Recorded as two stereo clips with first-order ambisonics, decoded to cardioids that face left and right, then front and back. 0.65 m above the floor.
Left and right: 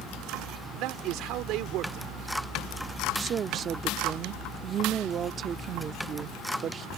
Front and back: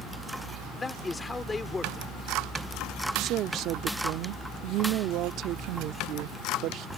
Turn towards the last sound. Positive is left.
turn(degrees=-145)